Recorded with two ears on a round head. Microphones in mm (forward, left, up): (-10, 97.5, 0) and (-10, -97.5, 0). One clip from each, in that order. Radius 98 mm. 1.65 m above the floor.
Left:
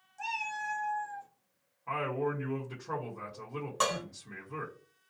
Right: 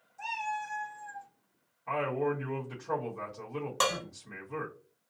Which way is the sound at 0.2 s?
20° left (ahead or behind).